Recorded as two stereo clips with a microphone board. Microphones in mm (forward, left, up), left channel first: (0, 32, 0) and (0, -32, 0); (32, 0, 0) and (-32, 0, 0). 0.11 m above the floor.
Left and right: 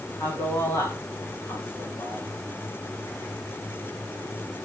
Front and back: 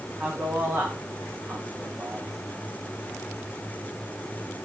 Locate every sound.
0.2 s a man speaking: 110° left, 8 m; by 2.3 s 120° left, 9.5 m